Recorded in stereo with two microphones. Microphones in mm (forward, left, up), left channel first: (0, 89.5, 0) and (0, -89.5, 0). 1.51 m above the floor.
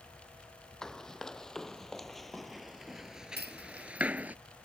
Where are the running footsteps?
5° left (ahead or behind); by 4.4 s 10° right (ahead or behind).